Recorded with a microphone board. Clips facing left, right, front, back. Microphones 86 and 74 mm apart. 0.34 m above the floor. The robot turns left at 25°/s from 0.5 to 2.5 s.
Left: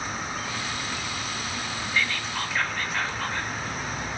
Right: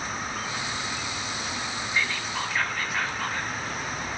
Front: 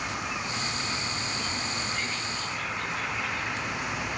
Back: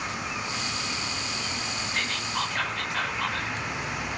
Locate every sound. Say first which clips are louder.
1.9 s whispering: left 1 dB, back 3 dB; 165° right, 2.5 m; by 3.5 s straight behind, 2.5 m